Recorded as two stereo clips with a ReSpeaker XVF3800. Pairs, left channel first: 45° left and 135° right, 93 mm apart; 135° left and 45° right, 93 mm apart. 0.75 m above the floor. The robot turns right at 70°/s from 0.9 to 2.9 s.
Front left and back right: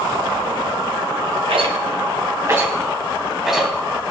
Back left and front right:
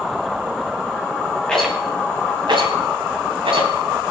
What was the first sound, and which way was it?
A rattle, 145° right.